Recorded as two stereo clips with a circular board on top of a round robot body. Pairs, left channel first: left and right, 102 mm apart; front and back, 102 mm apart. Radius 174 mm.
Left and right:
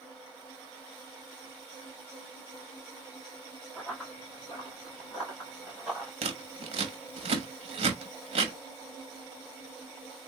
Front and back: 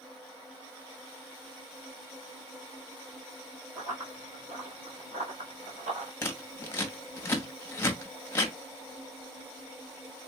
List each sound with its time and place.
3.8 s running footsteps: 175° left, 1.5 m
6.2 s scissors: 70° right, 0.8 m